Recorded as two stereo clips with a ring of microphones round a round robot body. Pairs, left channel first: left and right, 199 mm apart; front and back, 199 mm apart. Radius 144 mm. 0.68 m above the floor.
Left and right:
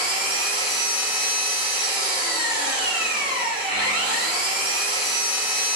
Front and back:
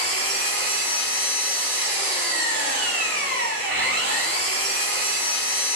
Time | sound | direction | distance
0.0 | an engine running | 155° right | 1.9 m